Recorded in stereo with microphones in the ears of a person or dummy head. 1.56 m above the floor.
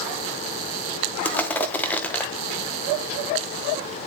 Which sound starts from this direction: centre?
Crushing, at 1.2 s.